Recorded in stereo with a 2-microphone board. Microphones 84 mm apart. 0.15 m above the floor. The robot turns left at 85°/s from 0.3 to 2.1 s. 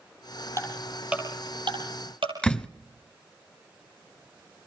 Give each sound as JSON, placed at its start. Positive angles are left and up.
{"t": 0.6, "sound": "ticking", "side_deg": 30, "distance_m": 8.5}
{"t": 2.4, "sound": "a door slam", "side_deg": 10, "distance_m": 0.9}